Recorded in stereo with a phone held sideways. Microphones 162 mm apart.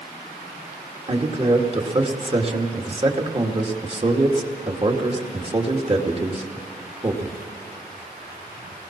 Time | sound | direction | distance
1.1 | a man speaking | 35° right (ahead or behind) | 2.5 m